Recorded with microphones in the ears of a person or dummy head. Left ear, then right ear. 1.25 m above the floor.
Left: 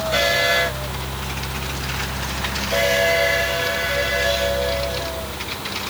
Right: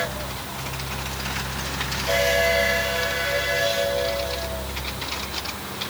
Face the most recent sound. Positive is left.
No sound to turn to.